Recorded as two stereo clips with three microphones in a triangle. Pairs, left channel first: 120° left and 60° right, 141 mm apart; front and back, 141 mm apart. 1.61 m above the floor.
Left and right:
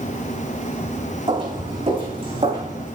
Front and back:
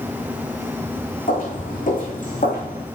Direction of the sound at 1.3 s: 10° right.